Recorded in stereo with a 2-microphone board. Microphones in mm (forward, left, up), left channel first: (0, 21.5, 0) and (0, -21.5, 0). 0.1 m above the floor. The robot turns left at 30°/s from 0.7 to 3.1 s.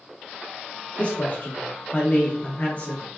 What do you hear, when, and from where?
1.0 s a man speaking: 120° left, 1.3 m; by 3.0 s 55° left, 1.3 m